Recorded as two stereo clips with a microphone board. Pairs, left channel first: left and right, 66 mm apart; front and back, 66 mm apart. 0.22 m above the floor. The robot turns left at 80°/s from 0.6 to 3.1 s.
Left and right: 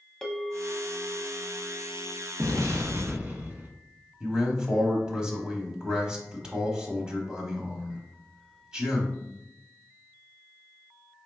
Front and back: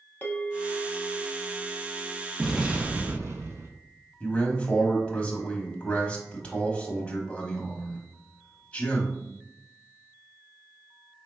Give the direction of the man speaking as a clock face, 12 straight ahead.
1 o'clock.